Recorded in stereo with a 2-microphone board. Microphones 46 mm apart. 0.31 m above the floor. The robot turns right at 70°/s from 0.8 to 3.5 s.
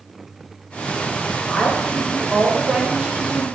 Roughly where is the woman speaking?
Centre.